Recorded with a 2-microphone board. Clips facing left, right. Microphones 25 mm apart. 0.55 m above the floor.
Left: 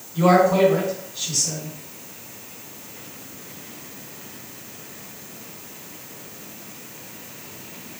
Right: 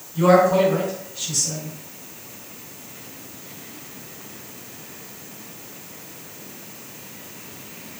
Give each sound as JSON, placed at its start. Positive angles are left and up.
{"t": 0.1, "sound": "a man speaking", "side_deg": 30, "distance_m": 1.8}